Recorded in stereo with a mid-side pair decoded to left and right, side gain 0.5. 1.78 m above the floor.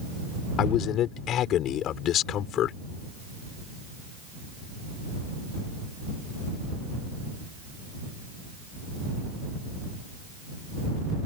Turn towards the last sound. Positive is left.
turn(degrees=65)